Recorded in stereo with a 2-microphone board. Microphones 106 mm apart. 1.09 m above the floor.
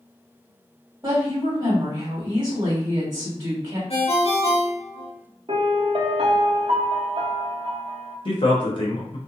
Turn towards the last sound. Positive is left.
turn(degrees=50)  # may be behind; listen again after turning